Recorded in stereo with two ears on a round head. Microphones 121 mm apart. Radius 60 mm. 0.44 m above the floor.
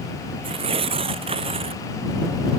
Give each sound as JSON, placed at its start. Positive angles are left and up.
{"t": 0.4, "sound": "tearing paper", "side_deg": -45}